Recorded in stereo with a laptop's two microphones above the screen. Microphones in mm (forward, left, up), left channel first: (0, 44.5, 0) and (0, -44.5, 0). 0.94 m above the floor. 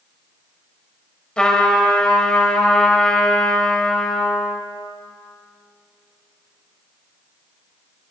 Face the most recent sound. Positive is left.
turn(degrees=10)  # may be behind; listen again after turning